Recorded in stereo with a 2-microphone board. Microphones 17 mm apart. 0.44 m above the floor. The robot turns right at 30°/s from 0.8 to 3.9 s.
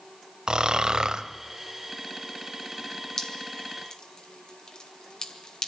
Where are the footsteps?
No footsteps in this recording.